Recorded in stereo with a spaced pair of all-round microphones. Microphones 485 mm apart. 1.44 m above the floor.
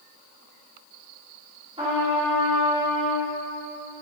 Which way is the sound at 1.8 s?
10° right (ahead or behind).